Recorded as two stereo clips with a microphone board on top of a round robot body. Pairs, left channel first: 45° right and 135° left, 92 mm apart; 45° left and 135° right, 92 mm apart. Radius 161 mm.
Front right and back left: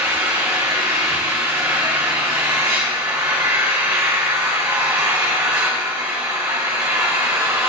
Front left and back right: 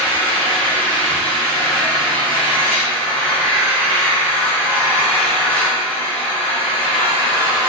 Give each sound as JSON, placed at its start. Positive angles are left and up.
{"t": 0.0, "sound": "an engine running", "azimuth_deg": 80, "distance_m": 2.5}